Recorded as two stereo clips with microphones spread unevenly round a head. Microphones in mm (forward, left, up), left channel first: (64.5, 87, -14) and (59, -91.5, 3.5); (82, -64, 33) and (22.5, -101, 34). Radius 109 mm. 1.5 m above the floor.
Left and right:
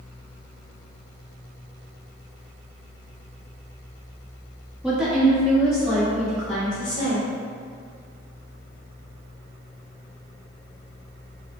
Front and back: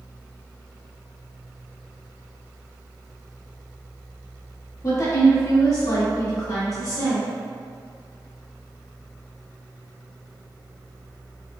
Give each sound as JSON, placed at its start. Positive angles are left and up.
{"t": 4.8, "sound": "a woman speaking", "azimuth_deg": -10, "distance_m": 1.7}